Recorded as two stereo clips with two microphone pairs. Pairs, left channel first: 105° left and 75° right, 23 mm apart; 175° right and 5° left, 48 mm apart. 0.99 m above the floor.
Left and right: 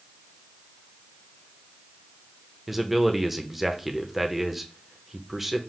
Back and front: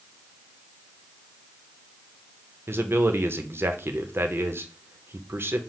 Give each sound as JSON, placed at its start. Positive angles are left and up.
{"t": 2.7, "sound": "a man speaking", "azimuth_deg": 5, "distance_m": 0.6}